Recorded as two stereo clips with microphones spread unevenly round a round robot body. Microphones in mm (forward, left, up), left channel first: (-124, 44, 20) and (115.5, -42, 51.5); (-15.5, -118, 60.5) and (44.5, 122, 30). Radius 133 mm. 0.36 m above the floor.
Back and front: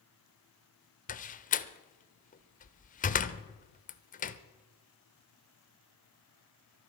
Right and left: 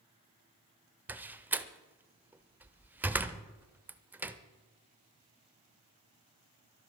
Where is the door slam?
145° left, 0.8 m.